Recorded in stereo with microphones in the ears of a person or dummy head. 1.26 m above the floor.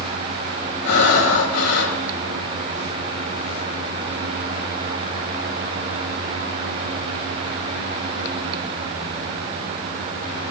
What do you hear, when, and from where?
0.8 s breathing: 65° left (ahead or behind), 7.5 m